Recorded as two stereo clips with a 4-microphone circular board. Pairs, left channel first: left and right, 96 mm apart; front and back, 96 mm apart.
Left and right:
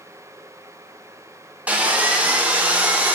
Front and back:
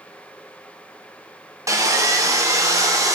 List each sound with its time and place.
1.7 s sawing: 155° right, 0.7 m